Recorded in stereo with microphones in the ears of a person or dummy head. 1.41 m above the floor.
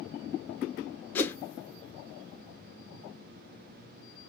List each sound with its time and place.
1.1 s a whoosh: 20° left (ahead or behind), 0.6 m